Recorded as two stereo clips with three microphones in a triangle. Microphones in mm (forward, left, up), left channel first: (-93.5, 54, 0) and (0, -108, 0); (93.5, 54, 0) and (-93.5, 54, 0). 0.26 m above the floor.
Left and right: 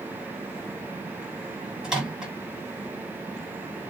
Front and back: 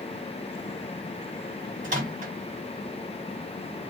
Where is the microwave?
145° right, 1.7 m.